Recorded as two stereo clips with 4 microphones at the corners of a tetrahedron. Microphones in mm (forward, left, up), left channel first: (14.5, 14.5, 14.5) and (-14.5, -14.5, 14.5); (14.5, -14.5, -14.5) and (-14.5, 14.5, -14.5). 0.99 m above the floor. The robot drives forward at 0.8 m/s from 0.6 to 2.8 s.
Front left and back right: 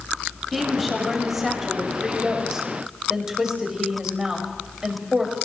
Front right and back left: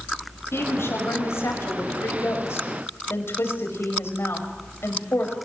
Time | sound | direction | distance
0.5 | a woman speaking | 45° right | 6.5 m